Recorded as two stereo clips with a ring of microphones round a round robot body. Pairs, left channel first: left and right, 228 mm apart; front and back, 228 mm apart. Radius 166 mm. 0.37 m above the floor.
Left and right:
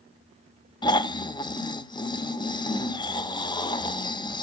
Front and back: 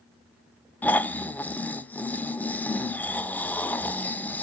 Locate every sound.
0.8 s snoring: 70° left, 0.6 m